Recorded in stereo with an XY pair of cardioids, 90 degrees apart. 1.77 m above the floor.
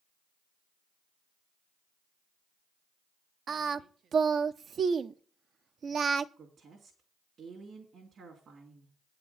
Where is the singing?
55° right, 0.7 m.